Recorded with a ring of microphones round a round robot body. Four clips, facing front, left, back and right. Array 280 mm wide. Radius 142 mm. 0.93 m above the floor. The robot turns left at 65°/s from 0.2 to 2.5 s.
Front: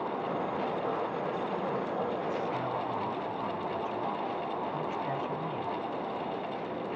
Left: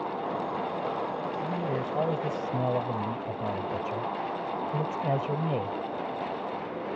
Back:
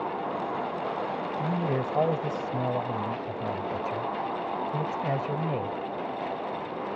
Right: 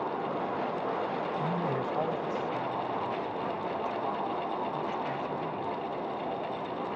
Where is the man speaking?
160° right; by 5.8 s 125° left.